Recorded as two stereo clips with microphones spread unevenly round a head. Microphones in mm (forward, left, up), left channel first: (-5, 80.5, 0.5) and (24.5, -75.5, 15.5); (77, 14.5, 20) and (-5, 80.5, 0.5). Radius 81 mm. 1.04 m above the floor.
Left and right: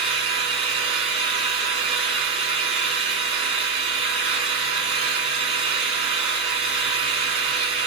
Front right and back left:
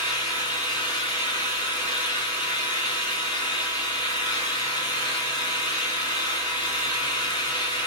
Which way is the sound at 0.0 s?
135° right.